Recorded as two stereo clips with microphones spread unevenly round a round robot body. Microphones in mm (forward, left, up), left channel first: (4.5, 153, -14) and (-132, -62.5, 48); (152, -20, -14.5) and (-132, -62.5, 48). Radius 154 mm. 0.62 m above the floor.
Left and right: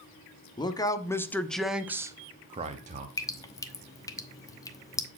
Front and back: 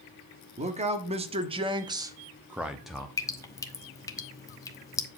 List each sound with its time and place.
0.6 s a man speaking: 115° left, 1.2 m; by 3.1 s 60° right, 1.0 m
3.2 s dripping: 40° left, 0.9 m